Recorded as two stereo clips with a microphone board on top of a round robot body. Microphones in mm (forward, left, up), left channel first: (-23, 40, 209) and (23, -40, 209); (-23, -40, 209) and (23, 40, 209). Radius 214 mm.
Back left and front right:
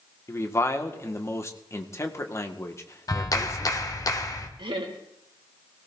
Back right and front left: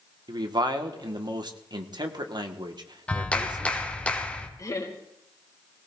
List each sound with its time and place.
0.3 s a man speaking: 70° left, 1.9 m
3.1 s a clap: 165° left, 1.7 m
4.6 s laughter: 75° right, 3 m